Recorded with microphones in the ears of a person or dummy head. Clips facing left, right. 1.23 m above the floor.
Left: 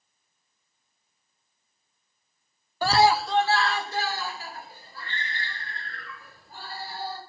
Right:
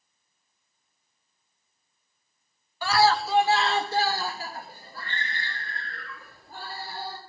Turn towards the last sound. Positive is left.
turn(degrees=-50)  # may be behind; listen again after turning